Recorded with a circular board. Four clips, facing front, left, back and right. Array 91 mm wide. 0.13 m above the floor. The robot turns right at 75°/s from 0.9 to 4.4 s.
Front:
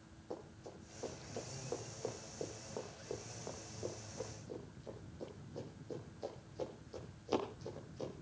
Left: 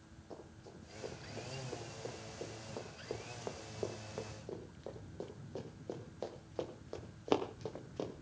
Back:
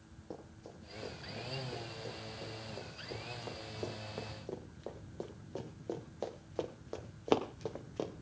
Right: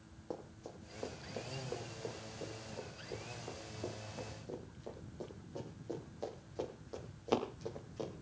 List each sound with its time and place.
0.3 s running footsteps: 100° right, 7 m; by 8.1 s 160° left, 3 m